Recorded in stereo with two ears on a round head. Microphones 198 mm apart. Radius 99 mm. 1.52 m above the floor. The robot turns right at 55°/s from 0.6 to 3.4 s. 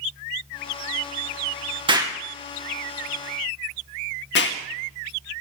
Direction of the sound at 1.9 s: 25° right (ahead or behind).